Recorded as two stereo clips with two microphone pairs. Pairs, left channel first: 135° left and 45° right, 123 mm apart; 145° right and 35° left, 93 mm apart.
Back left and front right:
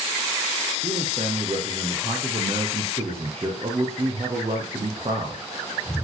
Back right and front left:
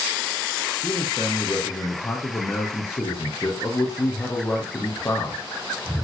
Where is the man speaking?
80° right, 4.5 m.